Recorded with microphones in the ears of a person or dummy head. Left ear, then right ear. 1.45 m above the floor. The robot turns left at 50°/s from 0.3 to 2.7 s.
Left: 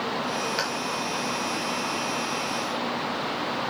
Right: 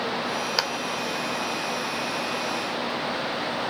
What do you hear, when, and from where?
0.6 s a clap: 30° right (ahead or behind), 1.4 m; by 0.7 s 35° right (ahead or behind), 1.4 m